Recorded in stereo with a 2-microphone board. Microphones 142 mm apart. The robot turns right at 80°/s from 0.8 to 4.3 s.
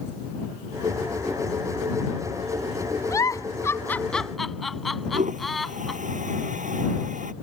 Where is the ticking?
No ticking in this recording.